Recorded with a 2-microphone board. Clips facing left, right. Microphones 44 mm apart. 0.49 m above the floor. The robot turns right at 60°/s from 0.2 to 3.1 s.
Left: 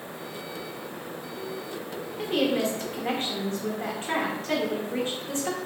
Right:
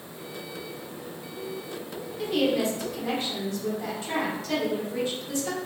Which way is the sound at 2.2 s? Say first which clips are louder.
Even; 50° left.